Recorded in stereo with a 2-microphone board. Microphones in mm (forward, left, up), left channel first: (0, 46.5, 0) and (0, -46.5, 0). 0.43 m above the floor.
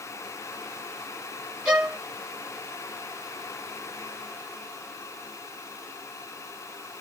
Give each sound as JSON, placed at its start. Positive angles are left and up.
{"t": 1.6, "sound": "a violin", "side_deg": -15, "distance_m": 1.5}